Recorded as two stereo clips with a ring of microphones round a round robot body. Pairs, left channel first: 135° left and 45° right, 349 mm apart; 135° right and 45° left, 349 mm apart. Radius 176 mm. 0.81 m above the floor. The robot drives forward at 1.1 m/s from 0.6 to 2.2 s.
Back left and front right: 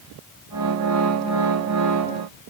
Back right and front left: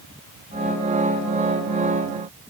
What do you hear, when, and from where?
Only background noise.